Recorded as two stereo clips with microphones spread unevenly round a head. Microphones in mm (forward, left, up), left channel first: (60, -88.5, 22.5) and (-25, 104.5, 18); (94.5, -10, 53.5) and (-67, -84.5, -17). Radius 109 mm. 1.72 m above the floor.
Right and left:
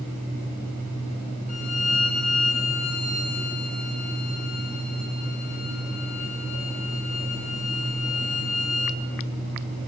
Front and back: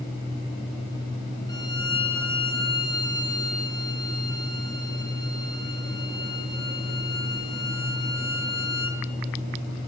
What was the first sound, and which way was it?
A violin, 20° right.